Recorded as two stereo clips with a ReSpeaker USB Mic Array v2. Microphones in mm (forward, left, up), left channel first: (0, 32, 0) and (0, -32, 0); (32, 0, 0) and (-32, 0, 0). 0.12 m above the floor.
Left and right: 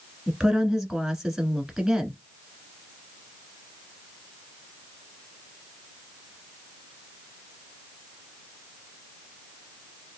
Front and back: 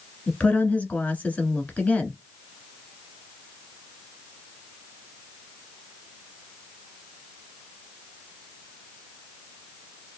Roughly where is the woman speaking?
Ahead.